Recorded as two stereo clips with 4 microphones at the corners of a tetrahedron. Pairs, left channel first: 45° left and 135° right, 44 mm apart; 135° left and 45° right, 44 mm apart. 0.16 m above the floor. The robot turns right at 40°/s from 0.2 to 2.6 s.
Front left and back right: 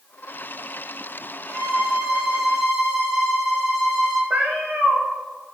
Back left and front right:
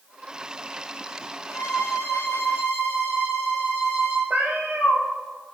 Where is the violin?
100° right, 3 m; by 4.2 s 55° right, 3 m.